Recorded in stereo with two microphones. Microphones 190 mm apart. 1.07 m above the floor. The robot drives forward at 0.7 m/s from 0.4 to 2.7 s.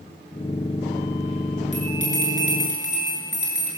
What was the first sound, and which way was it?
A bell, 40° left (ahead or behind).